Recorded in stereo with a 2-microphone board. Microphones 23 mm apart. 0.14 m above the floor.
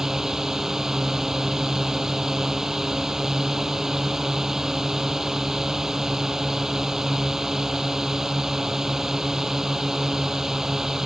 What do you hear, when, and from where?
0.0 s a drone: 20° right (ahead or behind)